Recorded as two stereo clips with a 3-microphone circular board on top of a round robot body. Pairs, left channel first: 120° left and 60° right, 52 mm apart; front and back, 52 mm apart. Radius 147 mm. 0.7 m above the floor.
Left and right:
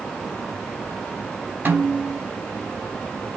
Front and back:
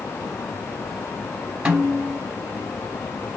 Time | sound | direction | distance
1.6 | a snare drum | 110° right | 3 m